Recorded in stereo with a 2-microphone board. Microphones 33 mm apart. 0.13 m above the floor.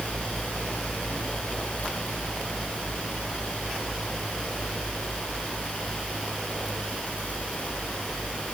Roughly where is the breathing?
I don't hear breathing.